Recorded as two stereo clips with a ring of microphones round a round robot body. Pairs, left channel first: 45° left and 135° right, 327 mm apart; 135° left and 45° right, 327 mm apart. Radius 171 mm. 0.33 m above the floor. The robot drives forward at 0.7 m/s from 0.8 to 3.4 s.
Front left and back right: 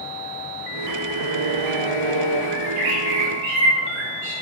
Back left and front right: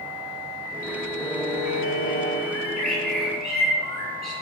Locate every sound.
1.2 s a violin: 145° right, 0.9 m; by 2.4 s 160° right, 1.7 m
2.5 s a bird: 160° right, 5.5 m